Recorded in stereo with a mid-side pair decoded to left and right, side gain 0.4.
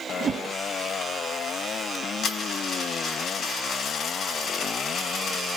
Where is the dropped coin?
60° left, 3.5 m.